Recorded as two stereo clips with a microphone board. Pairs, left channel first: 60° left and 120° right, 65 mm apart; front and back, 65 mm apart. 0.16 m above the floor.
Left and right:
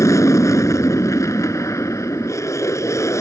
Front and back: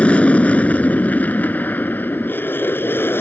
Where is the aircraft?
65° left; by 3.2 s 40° left.